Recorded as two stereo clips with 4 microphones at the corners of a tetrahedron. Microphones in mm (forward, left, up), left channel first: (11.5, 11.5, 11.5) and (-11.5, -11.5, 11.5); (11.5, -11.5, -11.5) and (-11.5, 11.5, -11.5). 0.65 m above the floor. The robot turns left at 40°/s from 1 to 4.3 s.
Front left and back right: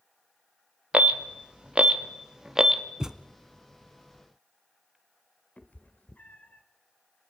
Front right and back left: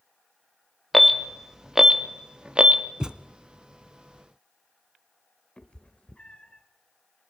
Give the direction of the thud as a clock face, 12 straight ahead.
6 o'clock.